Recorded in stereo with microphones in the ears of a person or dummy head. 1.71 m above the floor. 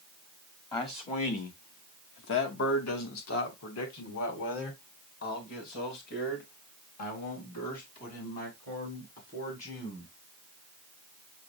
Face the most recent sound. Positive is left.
turn(degrees=45)  # may be behind; listen again after turning